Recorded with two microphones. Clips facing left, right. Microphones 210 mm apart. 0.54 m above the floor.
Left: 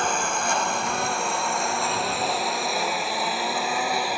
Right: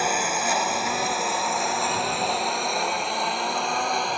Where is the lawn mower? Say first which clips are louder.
Right 1 dB; 5° right (ahead or behind); by 4.2 s 5° left (ahead or behind).